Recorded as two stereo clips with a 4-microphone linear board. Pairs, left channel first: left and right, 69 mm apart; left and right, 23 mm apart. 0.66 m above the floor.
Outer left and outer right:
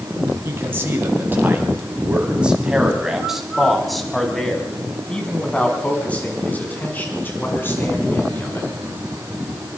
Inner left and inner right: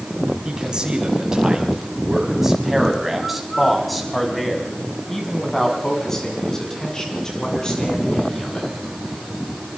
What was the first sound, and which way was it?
A man speaking, 35° right (ahead or behind).